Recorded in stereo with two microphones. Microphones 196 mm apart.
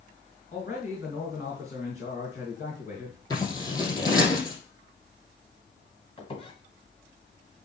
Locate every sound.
0.5 s a man speaking: 40° left (ahead or behind), 2.5 m
3.3 s scissors: 20° left (ahead or behind), 4.5 m
6.2 s a squeak: 30° left (ahead or behind), 1.8 m